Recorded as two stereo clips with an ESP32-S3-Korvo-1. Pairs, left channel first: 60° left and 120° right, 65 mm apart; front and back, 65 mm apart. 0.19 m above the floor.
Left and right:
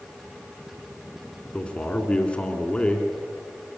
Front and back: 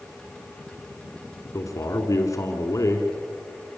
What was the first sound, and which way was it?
A man speaking, 10° right.